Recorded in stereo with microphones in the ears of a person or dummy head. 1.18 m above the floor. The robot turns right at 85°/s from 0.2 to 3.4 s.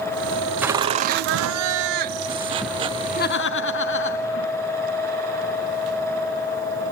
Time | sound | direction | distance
0.6 | laughter | 170° right | 1.4 m